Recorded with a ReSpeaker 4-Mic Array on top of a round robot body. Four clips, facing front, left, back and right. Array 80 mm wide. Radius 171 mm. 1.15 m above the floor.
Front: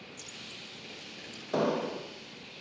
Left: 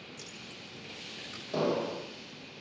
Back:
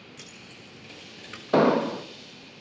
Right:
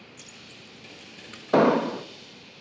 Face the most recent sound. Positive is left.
turn(degrees=-120)